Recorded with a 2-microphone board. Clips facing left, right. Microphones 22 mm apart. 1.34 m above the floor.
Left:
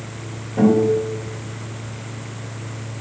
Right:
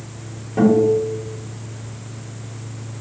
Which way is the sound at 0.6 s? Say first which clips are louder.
Right 1 dB; 25° right (ahead or behind).